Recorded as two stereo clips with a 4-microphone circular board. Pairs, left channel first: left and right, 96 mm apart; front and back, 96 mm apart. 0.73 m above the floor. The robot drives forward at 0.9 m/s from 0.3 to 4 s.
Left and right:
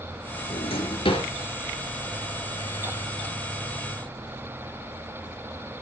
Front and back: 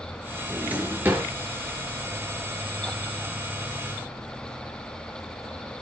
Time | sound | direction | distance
0.5 | a drawer | 105° left | 4.5 m